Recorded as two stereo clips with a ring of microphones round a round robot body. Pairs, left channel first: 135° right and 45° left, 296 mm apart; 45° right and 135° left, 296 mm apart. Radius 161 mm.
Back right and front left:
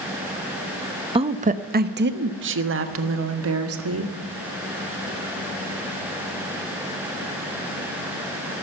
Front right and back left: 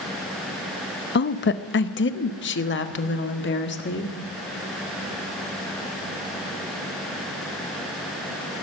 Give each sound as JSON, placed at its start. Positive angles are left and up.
{"t": 1.1, "sound": "a woman speaking", "azimuth_deg": -20, "distance_m": 0.9}